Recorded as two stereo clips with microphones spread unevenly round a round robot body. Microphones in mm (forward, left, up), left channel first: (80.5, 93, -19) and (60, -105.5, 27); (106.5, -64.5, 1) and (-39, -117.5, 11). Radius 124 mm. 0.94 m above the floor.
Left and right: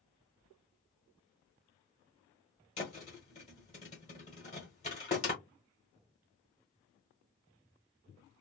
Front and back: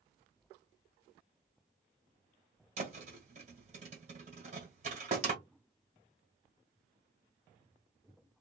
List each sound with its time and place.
2.8 s a thud: 150° left, 1.0 m